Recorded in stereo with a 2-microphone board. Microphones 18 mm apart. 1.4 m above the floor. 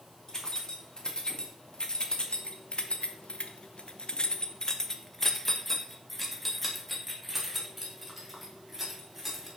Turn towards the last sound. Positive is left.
turn(degrees=-10)  # may be behind; listen again after turning